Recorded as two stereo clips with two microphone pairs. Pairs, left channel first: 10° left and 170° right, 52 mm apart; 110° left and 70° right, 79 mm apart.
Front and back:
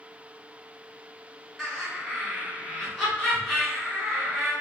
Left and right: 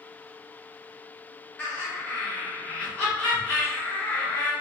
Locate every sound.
1.6 s laughter: 85° left, 1.3 m